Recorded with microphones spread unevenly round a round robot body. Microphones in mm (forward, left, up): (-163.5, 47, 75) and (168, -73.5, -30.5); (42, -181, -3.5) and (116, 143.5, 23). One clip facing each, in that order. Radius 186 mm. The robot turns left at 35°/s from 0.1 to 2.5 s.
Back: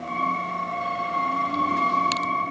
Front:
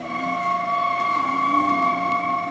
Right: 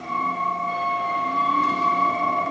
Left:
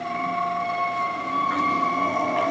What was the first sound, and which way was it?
Only background noise.